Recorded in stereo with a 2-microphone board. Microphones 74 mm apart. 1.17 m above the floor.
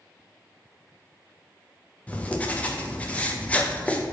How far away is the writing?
About 0.5 m.